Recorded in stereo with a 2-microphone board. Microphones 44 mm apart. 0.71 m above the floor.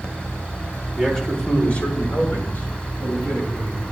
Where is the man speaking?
10° left (ahead or behind), 1.6 m; by 3.8 s 50° left (ahead or behind), 5 m.